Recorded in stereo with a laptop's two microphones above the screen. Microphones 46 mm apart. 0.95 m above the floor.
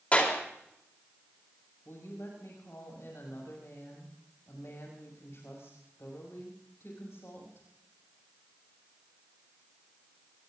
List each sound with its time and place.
0.1 s a clap: 30° left (ahead or behind), 3.5 m
1.9 s a woman speaking: 60° left (ahead or behind), 6 m